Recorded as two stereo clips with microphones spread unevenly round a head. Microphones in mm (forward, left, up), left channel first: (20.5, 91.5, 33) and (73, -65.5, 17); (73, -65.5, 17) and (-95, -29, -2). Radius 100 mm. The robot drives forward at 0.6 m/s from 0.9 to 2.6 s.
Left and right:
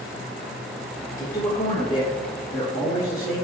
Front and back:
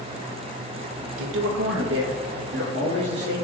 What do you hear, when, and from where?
1.2 s a man speaking: straight behind, 0.6 m